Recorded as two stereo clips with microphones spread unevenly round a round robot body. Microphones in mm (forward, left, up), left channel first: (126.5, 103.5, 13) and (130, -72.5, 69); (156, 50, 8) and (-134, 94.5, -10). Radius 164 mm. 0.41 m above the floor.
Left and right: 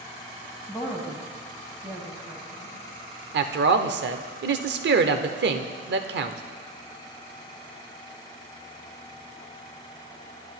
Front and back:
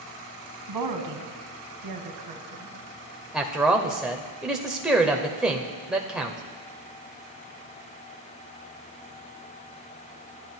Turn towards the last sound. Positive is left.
turn(degrees=-105)